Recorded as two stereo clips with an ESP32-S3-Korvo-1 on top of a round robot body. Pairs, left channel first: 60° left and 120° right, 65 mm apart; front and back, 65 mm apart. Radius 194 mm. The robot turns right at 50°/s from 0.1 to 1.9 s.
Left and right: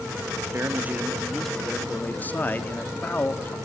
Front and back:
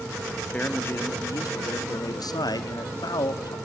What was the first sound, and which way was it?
A man speaking, 70° right.